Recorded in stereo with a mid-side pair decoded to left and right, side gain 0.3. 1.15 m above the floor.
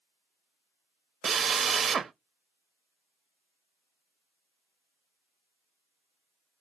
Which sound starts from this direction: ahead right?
A drill, at 1.2 s.